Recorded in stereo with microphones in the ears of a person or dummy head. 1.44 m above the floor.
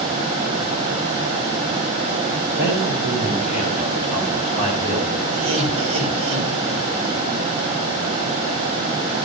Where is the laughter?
80° right, 4.5 m.